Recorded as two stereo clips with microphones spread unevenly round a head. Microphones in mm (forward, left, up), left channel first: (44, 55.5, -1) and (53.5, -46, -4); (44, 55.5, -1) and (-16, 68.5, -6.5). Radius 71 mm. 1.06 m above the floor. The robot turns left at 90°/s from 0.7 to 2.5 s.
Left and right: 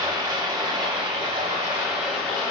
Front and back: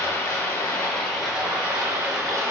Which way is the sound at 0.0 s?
50° right.